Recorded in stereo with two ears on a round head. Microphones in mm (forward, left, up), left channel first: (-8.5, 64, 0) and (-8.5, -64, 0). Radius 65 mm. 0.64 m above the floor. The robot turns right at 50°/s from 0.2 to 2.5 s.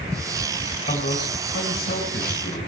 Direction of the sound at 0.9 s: 45° left.